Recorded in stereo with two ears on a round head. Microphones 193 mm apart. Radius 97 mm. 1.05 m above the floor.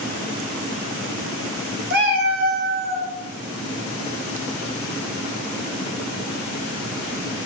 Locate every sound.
1.9 s a cat meowing: 55° right (ahead or behind), 1.6 m; by 3.1 s 35° right (ahead or behind), 1.3 m